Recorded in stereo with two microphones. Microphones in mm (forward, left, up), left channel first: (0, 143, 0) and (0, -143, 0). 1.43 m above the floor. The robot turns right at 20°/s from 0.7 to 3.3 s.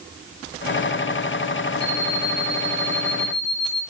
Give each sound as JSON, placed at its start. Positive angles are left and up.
{"t": 1.8, "sound": "an alarm clock", "side_deg": -55, "distance_m": 3.5}